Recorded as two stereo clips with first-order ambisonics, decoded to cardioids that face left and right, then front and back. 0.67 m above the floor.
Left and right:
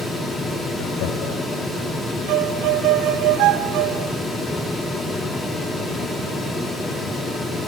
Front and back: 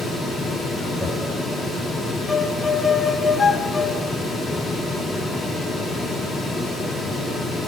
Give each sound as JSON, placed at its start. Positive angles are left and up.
{"t": 0.8, "sound": "laughter", "azimuth_deg": 90, "distance_m": 3.5}
{"t": 2.3, "sound": "a violin", "azimuth_deg": -75, "distance_m": 1.6}